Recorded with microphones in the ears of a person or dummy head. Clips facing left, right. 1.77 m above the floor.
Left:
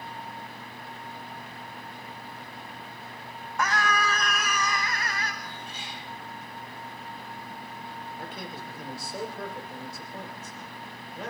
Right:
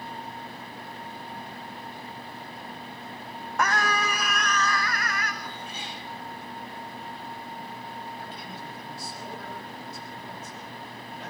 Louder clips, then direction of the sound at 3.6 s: Right 1 dB; 50° right (ahead or behind).